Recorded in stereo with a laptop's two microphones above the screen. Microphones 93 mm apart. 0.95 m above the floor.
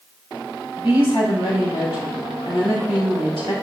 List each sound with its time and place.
0.8 s a woman speaking: 75° left (ahead or behind), 4.5 m